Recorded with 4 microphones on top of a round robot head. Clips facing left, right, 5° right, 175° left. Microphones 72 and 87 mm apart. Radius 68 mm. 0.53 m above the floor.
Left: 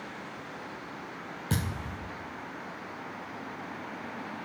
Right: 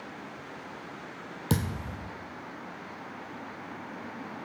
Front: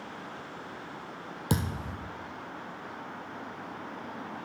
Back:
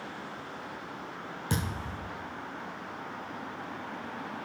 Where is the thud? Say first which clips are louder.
Right 3 dB, front 3 dB; 55° right, 1.4 m.